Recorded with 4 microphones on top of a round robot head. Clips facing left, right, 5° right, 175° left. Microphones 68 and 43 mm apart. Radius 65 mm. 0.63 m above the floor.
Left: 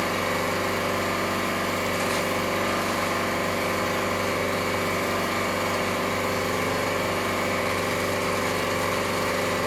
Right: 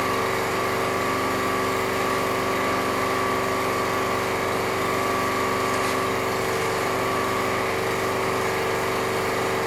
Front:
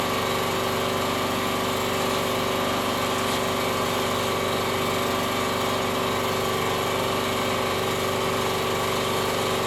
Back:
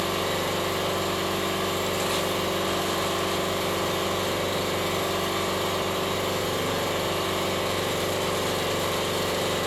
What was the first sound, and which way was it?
An engine running, 20° right.